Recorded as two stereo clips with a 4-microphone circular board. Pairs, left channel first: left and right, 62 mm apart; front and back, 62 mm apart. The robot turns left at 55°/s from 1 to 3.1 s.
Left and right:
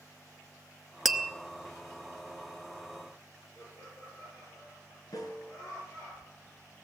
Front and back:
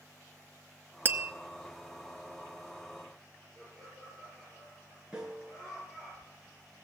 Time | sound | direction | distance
1.1 | tapping | 175° right | 0.8 m
3.5 | laughter | 90° left | 10 m
5.1 | a snare drum | 100° left | 3.5 m